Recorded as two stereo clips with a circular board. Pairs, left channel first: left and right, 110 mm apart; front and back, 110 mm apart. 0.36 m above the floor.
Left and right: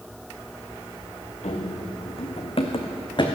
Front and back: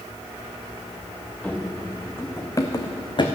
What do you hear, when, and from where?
1.4 s running footsteps: 85° left, 1.7 m; by 3.3 s 45° left, 1.4 m